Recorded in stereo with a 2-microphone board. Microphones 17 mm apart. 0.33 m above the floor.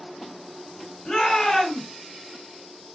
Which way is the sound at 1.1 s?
55° left (ahead or behind).